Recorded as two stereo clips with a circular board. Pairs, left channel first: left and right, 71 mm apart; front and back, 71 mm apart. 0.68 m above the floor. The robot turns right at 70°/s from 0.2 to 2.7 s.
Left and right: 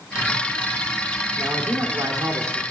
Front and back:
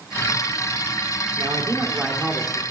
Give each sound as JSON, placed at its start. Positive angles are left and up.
{"t": 1.4, "sound": "a man speaking", "azimuth_deg": -155, "distance_m": 2.0}